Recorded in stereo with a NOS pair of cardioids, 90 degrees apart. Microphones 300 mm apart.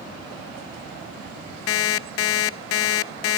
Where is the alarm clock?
55° left, 0.5 m.